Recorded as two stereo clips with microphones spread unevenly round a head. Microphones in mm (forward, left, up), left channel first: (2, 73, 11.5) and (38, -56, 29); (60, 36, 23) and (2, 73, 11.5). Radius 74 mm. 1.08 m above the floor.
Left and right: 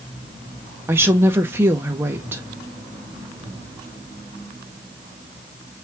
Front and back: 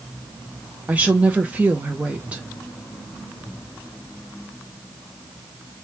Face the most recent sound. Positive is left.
turn(degrees=-150)